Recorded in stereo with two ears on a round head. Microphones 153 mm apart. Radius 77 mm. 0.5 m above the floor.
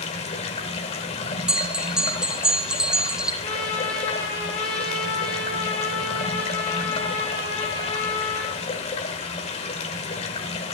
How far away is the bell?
About 0.9 m.